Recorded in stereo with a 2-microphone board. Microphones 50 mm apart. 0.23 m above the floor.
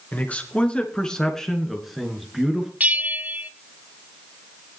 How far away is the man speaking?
About 2.5 m.